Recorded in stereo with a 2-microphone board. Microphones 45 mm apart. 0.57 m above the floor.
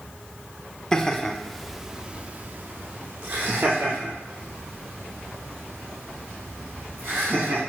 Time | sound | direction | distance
0.9 | laughter | 15° left (ahead or behind) | 1.2 m